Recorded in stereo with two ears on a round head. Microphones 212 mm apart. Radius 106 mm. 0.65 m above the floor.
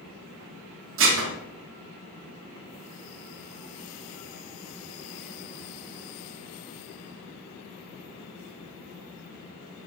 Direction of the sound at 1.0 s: 55° right (ahead or behind).